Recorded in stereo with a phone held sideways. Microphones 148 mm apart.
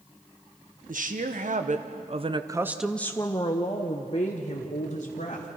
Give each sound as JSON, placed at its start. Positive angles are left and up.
{"t": 0.9, "sound": "a woman speaking", "side_deg": -75, "distance_m": 1.6}